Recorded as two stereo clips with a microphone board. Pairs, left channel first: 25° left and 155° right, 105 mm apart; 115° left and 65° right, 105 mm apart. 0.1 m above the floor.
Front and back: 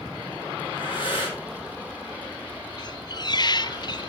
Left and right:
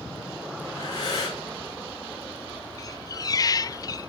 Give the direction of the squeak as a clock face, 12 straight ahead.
10 o'clock.